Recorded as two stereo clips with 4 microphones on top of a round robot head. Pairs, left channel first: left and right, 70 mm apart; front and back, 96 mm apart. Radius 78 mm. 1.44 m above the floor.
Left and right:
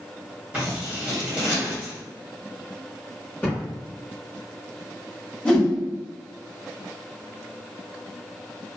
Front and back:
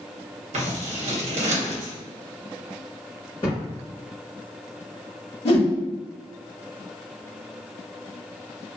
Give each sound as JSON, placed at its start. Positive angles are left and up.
{"t": 0.5, "sound": "scissors", "azimuth_deg": -170, "distance_m": 0.8}
{"t": 3.4, "sound": "a thud", "azimuth_deg": 20, "distance_m": 1.6}
{"t": 5.5, "sound": "a whoosh", "azimuth_deg": 10, "distance_m": 1.3}